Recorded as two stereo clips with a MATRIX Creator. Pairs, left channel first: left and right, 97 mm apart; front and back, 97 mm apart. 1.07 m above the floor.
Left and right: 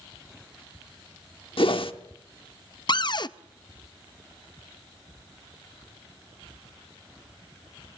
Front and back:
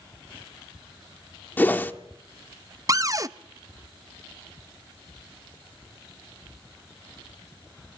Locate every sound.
1.6 s a whoosh: 70° left, 1.2 m
2.9 s a cupboard door: 125° left, 0.6 m